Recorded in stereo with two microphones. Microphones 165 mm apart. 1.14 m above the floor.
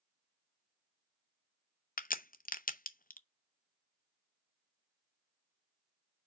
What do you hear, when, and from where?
2.0 s a crack: 65° left (ahead or behind), 0.6 m